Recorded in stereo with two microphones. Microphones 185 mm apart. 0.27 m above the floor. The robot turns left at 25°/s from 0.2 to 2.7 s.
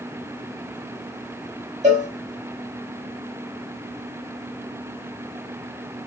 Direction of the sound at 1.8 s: 40° right (ahead or behind).